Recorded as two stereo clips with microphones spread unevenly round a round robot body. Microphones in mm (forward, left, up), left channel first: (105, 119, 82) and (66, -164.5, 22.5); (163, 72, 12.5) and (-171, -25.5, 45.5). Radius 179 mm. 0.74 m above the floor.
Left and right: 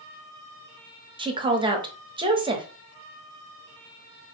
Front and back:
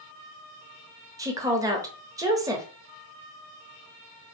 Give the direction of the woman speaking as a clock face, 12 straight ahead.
3 o'clock.